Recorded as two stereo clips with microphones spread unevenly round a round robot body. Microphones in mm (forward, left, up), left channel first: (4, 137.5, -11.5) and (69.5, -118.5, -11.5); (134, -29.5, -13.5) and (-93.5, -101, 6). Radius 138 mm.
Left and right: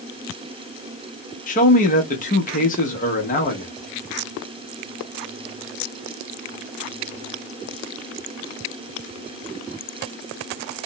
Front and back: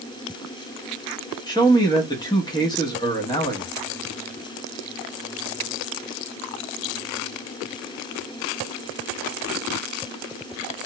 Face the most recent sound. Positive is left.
turn(degrees=70)